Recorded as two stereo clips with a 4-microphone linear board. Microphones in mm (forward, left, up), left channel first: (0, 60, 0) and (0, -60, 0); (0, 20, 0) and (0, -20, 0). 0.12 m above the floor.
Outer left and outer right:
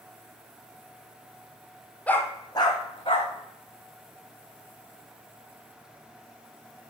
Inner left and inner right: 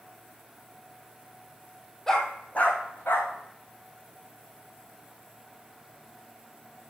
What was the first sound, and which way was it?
A dog barking, 10° left (ahead or behind).